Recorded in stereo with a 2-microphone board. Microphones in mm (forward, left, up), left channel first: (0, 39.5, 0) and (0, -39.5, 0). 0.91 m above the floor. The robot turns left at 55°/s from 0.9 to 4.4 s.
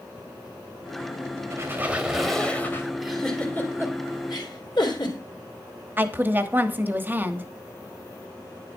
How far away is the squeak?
About 2 m.